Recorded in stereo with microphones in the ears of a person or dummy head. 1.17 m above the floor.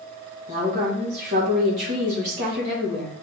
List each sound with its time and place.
0.5 s a woman speaking: 40° right (ahead or behind), 1.5 m